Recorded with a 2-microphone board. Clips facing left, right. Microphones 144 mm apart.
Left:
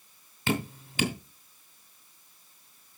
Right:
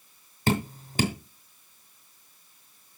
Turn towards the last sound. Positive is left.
turn(degrees=-40)  # may be behind; listen again after turning